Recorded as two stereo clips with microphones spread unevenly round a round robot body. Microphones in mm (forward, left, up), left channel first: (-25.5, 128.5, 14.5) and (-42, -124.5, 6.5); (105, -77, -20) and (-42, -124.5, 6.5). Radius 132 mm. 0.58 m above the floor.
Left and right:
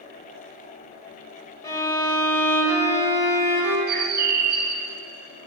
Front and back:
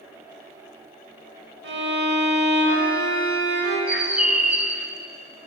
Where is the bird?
70° right, 0.7 m.